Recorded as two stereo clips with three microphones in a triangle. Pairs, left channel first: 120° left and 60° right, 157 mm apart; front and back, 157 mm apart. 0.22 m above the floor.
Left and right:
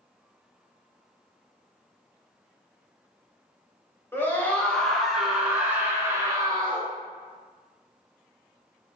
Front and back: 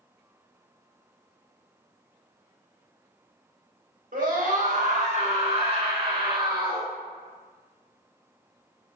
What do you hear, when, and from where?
4.1 s a scream: 165° right, 2.5 m; by 6.9 s 115° right, 2.5 m